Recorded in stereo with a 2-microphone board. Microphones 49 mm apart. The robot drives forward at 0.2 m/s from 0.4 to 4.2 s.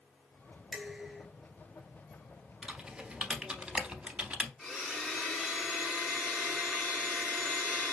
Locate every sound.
0.7 s dishes clattering: 5° right (ahead or behind), 1.5 m; by 1.3 s 10° right (ahead or behind), 1.4 m
2.6 s typing on a keyboard: 15° right (ahead or behind), 0.6 m; by 4.5 s 20° right (ahead or behind), 0.5 m
4.6 s a blender: 5° right (ahead or behind), 2 m